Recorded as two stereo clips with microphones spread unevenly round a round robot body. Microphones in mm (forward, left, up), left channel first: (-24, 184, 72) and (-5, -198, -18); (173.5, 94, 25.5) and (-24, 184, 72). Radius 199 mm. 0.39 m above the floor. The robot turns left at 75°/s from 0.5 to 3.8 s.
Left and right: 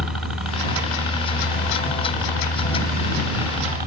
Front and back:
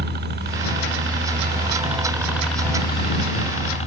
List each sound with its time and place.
0.0 s a helicopter: 160° right; by 3.9 s 50° right